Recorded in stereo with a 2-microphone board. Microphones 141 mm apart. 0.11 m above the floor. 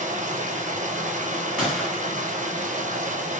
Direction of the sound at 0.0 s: 60° right (ahead or behind).